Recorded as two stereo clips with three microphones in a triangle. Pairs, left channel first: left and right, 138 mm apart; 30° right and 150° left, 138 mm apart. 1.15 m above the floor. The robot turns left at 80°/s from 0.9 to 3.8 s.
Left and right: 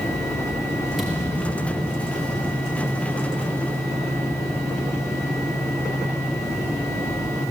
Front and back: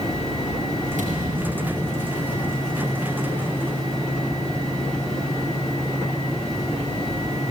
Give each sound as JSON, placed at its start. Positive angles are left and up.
{"t": 1.0, "sound": "a thud", "azimuth_deg": 180, "distance_m": 5.5}